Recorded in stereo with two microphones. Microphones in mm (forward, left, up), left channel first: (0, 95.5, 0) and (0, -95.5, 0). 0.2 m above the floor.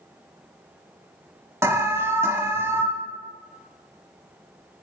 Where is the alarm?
15° right (ahead or behind), 0.8 m.